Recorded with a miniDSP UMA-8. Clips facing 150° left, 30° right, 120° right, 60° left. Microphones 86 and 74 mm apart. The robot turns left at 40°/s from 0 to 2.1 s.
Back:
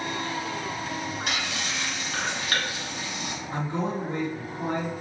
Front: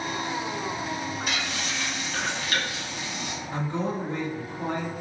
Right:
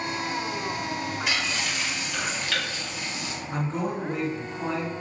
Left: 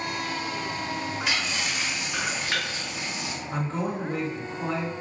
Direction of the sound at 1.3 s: 155° left.